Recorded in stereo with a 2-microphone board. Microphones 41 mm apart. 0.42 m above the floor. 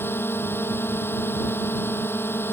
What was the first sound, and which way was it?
A drone, 65° left (ahead or behind).